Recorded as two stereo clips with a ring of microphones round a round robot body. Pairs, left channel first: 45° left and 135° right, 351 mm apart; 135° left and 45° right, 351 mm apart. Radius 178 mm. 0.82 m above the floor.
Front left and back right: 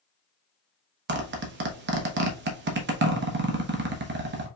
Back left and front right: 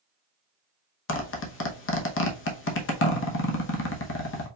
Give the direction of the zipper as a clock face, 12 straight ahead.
6 o'clock.